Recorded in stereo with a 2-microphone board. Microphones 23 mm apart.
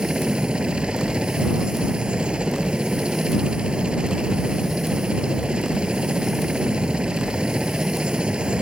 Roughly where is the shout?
I don't hear a shout.